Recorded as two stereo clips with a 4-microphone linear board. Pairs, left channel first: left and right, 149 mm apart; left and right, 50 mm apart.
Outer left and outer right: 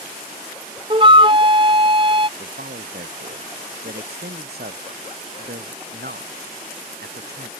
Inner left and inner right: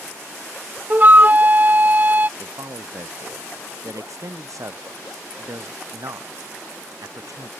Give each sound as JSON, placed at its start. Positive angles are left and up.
{"t": 0.9, "sound": "a flute", "side_deg": -35}
{"t": 2.4, "sound": "a man speaking", "side_deg": -80}